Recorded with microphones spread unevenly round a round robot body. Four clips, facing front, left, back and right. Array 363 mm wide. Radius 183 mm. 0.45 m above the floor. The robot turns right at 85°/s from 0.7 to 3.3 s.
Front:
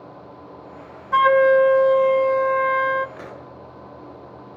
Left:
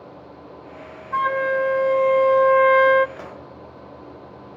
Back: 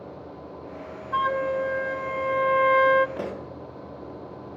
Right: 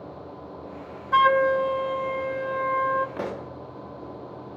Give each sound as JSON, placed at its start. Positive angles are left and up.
{"t": 1.1, "sound": "a flute", "azimuth_deg": -35, "distance_m": 0.7}
{"t": 3.2, "sound": "a pop", "azimuth_deg": -140, "distance_m": 1.2}